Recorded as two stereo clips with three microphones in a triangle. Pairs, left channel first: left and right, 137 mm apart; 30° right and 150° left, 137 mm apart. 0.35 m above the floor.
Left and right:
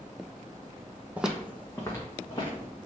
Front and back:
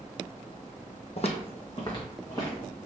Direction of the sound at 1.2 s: 15° right.